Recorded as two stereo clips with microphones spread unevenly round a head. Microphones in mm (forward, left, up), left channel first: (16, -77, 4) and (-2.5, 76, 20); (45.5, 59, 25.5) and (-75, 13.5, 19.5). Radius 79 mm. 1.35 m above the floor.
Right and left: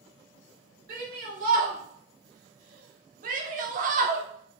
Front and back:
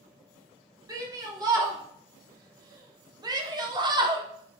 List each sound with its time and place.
0.9 s a shout: 140° left, 4 m; by 4.2 s 145° left, 1.6 m